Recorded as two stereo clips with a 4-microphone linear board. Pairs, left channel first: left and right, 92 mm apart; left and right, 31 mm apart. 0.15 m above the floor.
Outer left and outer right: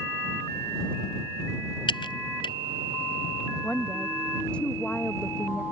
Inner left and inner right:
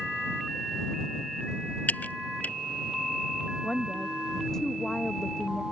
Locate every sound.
1.9 s typing on a keyboard: 65° left (ahead or behind)
3.6 s a woman speaking: 10° left (ahead or behind)